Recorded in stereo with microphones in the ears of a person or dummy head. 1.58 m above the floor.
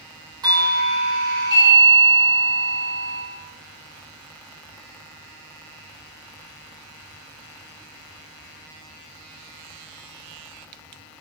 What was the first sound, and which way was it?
A doorbell, 20° right (ahead or behind).